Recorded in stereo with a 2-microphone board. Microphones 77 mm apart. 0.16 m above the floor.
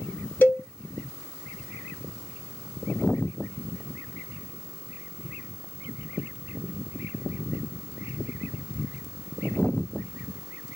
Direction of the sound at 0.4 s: 25° left (ahead or behind).